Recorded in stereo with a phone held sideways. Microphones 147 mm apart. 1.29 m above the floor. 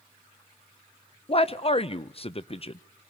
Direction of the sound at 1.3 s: 40° left (ahead or behind).